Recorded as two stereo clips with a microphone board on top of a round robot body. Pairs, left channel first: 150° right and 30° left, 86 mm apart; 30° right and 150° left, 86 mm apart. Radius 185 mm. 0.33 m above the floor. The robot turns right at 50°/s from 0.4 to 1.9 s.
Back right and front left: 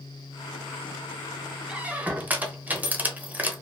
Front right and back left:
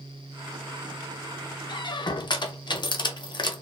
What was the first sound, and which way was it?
A squeak, 50° right.